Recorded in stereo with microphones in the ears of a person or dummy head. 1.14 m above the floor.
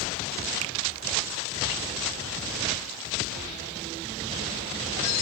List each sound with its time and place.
0.6 s a finger snap: 75° right (ahead or behind)